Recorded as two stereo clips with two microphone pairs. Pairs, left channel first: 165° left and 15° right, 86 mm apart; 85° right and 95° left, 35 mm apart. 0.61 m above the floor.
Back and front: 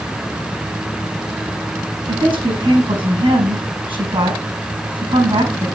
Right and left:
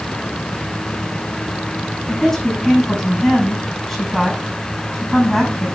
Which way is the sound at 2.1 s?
5° right.